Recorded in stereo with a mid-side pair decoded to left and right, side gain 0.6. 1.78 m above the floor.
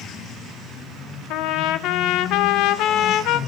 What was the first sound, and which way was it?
A trumpet, 70° left.